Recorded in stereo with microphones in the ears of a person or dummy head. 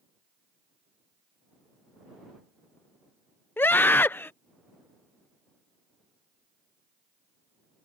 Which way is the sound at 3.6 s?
10° left (ahead or behind).